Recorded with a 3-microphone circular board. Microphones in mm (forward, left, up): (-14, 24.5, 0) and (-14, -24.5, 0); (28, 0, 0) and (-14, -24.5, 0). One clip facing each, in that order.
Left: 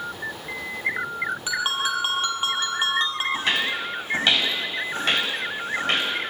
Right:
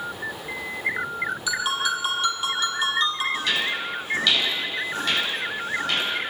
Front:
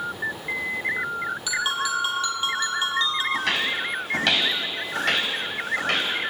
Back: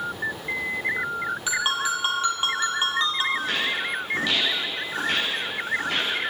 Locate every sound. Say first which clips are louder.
1.5 s a ringtone: right 1 dB, even; 145° left, 4 m
3.3 s footsteps: left 1 dB, front 1 dB; 40° left, 8 m; by 6.1 s 45° left, 10.5 m